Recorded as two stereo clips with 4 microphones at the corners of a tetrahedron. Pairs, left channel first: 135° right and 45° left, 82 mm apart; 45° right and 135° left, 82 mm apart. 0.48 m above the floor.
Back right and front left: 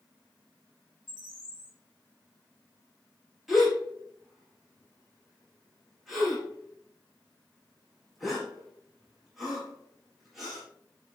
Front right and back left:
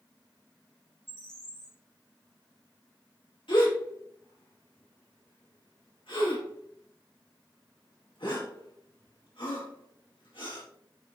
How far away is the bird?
About 2.5 m.